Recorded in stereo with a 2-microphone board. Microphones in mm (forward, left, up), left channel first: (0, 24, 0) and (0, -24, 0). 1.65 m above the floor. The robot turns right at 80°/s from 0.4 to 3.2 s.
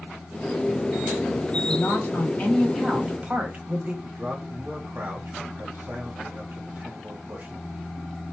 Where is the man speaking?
40° right (ahead or behind), 2.5 m.